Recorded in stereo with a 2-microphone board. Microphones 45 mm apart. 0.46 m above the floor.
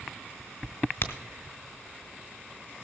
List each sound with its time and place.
1.0 s a crack: 65° left (ahead or behind), 1.3 m